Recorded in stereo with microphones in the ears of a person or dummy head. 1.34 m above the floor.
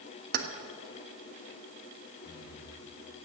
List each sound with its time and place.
0.3 s keys jangling: 60° right (ahead or behind), 1.2 m
2.2 s breathing: 60° left (ahead or behind), 2.5 m